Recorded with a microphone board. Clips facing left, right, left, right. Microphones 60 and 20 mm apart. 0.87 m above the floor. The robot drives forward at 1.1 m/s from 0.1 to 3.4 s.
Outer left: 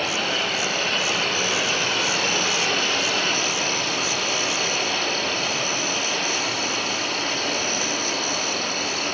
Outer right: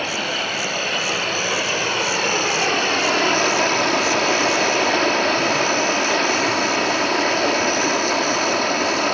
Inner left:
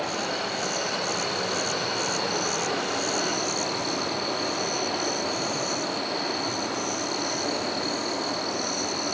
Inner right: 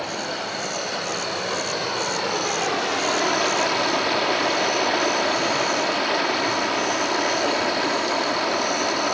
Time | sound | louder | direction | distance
0.0 | running water | outer right 1 dB, inner right 1 dB | 15° right (ahead or behind) | 4.5 m